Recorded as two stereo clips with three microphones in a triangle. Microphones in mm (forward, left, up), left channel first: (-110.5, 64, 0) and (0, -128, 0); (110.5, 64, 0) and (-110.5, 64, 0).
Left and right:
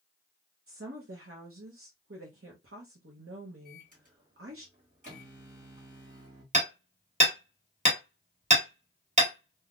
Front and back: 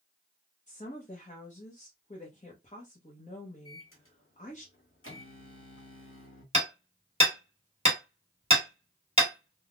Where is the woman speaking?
55° right, 0.7 m.